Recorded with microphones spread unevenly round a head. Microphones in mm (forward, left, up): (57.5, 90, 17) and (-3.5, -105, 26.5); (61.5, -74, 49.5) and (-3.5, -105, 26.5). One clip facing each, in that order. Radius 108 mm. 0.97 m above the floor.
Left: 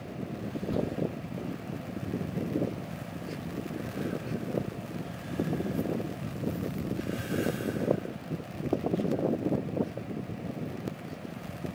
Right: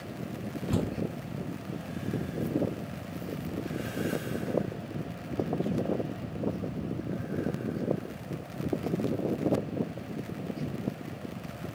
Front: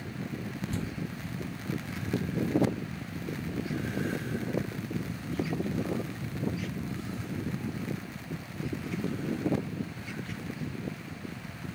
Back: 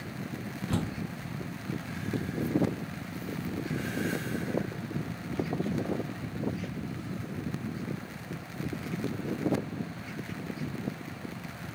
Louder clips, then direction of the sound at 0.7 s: Even, back 5 dB; 140° right.